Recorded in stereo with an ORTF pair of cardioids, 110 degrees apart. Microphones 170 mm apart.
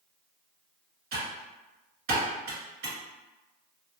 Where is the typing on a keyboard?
70° right, 2.0 m.